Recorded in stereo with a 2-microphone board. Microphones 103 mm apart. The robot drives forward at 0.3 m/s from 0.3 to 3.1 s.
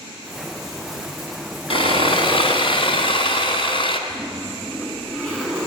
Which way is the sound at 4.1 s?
5° right (ahead or behind).